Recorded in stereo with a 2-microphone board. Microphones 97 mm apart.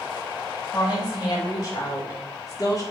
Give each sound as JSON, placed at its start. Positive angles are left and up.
{"t": 0.7, "sound": "a woman speaking", "side_deg": 45, "distance_m": 3.0}